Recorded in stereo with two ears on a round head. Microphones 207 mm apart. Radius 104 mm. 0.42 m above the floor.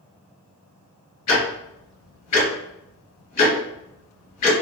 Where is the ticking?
80° left, 2.0 m.